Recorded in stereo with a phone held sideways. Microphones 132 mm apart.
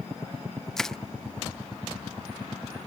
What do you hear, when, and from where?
0.8 s crushing: 5° left (ahead or behind)